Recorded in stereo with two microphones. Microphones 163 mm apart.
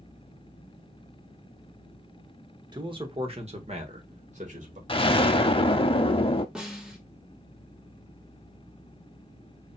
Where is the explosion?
35° left (ahead or behind), 0.6 m.